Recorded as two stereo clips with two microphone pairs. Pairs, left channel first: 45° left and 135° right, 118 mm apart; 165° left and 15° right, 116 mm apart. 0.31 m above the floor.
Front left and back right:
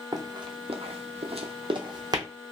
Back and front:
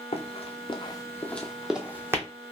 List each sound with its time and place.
0.1 s running footsteps: 175° left, 0.8 m; by 2.2 s 80° right, 0.9 m